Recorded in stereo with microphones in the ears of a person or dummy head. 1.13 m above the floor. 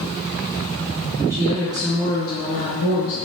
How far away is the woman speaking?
About 0.9 m.